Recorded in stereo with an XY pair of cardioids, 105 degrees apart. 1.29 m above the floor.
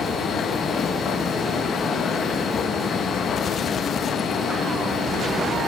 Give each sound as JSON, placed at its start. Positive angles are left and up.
{"t": 0.0, "sound": "a machine running", "azimuth_deg": 55, "distance_m": 1.0}